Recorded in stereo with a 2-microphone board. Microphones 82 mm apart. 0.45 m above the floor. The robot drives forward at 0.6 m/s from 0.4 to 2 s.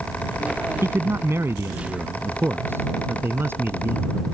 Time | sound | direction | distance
0.8 | a man speaking | 35° right (ahead or behind) | ?